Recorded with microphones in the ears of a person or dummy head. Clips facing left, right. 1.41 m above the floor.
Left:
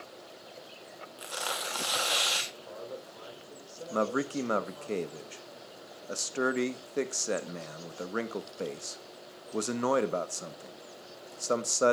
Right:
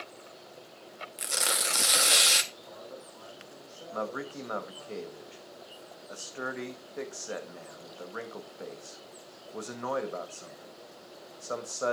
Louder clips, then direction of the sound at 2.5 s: Left 3 dB; 55° left (ahead or behind).